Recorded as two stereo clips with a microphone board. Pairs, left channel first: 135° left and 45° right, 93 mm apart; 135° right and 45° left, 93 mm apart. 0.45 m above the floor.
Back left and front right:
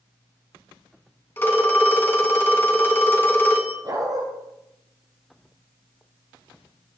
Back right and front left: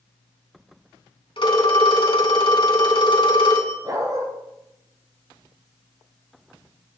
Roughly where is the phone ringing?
Behind.